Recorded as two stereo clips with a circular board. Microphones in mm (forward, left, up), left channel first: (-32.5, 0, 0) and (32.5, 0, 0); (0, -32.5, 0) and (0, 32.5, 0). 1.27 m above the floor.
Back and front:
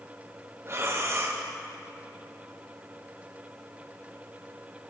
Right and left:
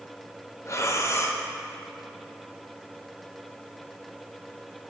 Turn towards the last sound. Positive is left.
turn(degrees=-45)